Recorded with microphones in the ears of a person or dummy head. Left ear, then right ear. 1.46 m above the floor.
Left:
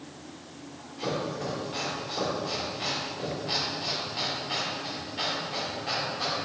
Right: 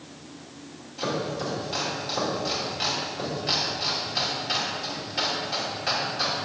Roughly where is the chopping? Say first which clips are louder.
Right 3 dB; right.